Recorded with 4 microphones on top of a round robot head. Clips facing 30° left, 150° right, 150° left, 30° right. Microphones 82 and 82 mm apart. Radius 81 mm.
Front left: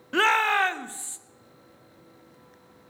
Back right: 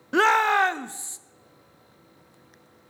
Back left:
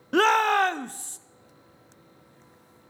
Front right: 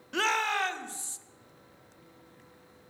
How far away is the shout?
About 0.5 m.